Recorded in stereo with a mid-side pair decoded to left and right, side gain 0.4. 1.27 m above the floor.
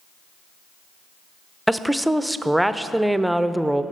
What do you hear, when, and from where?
1.7 s a woman speaking: 5° right, 0.5 m